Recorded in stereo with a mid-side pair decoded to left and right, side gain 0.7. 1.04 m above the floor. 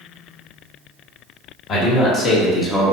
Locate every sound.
1.7 s a man speaking: 45° left, 1.4 m; by 2.9 s straight ahead, 0.8 m